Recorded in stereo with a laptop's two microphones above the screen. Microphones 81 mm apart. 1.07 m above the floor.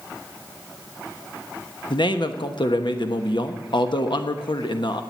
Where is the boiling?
No boiling in this recording.